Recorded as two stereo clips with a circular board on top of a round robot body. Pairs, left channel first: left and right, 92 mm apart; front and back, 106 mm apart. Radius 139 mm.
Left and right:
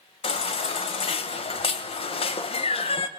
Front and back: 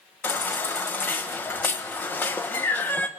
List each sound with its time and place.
0.2 s a baby crying: 75° left, 1.1 m